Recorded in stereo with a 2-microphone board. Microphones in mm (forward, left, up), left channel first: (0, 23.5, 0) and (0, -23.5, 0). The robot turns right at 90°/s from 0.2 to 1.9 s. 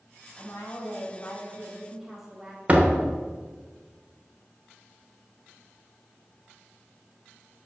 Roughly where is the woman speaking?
Ahead left.